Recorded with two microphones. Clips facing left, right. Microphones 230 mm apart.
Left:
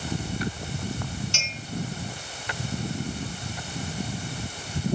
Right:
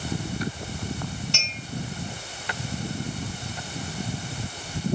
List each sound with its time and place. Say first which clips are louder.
1.3 s a clink: right 1 dB; 60° right (ahead or behind), 2.5 m